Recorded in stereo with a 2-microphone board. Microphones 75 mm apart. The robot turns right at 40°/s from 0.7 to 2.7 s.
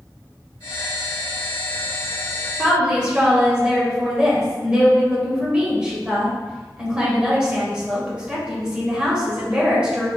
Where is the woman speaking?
10° right (ahead or behind), 1.5 m.